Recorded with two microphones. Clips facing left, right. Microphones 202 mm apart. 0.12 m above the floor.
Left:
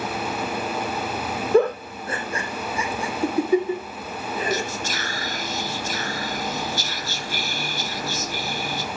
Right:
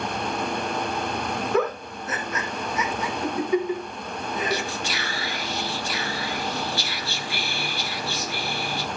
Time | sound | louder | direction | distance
1.5 | a giggle | left 8 dB | 30° left (ahead or behind) | 2 m
4.5 | whispering | left 1 dB | 45° left (ahead or behind) | 1.9 m